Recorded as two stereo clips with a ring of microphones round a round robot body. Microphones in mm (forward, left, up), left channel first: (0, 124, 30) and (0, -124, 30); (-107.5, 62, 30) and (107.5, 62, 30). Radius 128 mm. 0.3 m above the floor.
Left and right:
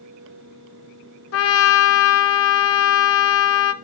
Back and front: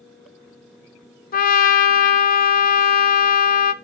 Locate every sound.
1.3 s a trumpet: 130° left, 0.8 m